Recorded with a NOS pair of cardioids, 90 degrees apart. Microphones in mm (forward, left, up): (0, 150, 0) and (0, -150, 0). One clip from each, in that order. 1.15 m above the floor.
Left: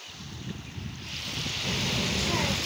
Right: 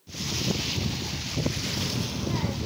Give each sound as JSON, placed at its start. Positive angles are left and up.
{"t": 1.6, "sound": "a child speaking", "azimuth_deg": 25, "distance_m": 0.7}